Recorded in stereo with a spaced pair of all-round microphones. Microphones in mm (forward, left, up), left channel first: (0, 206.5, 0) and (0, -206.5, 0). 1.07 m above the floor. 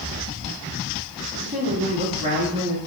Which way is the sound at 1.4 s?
20° right (ahead or behind).